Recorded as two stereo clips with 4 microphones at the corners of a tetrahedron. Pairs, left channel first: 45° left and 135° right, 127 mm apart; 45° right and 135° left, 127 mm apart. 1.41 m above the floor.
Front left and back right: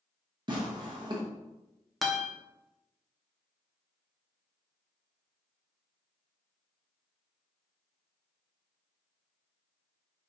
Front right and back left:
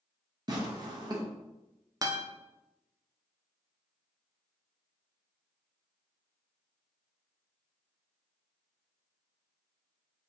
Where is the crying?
No crying in this recording.